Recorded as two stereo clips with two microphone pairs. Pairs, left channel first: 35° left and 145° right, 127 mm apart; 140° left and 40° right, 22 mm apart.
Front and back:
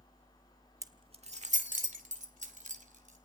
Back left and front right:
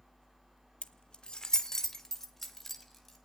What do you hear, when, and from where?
0.8 s keys jangling: 155° left, 0.9 m; by 3.2 s 135° right, 3.5 m